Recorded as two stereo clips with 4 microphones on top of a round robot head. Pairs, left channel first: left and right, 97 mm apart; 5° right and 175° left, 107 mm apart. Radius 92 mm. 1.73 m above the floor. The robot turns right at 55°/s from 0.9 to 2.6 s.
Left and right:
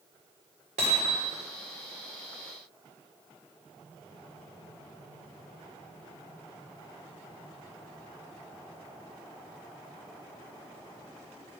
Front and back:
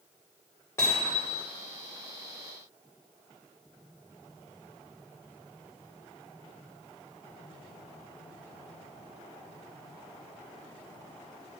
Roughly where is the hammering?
Right.